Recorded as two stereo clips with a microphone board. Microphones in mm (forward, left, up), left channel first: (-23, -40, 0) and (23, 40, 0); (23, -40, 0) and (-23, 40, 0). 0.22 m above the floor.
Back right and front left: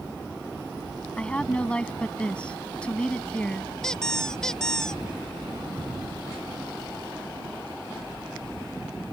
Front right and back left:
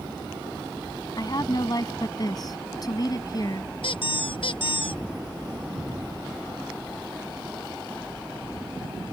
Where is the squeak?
40° right.